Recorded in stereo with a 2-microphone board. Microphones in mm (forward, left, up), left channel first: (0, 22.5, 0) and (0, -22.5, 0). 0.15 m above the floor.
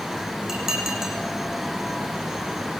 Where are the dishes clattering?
10° right (ahead or behind), 5.5 m.